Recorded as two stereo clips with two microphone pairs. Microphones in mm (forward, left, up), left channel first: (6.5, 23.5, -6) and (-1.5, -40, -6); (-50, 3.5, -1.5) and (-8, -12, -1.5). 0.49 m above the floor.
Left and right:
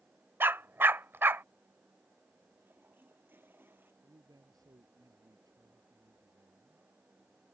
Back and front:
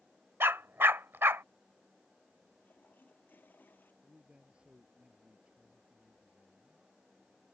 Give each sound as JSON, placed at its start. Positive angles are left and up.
{"t": 0.4, "sound": "a dog barking", "azimuth_deg": -45}
{"t": 2.6, "sound": "a toilet flushing", "azimuth_deg": -155}
{"t": 4.0, "sound": "a man speaking", "azimuth_deg": -85}